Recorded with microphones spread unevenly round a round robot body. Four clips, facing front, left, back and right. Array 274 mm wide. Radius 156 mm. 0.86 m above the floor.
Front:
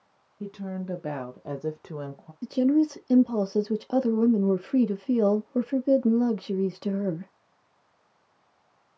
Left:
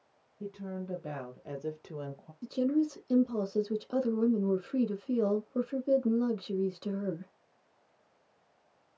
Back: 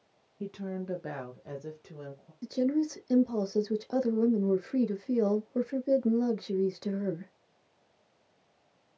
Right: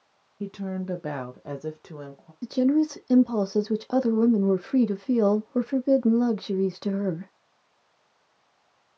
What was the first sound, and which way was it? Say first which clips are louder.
A woman speaking: right 7 dB, front 2 dB; 85° right.